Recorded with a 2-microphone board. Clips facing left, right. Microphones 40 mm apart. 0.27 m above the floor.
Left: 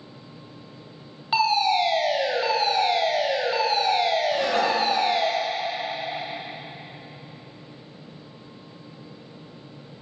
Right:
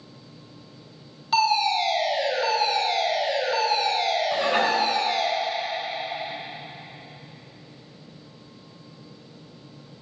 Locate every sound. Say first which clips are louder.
1.3 s a fire alarm: even; 20° left (ahead or behind), 1.9 m
4.3 s dishes clattering: even; 25° right (ahead or behind), 1.7 m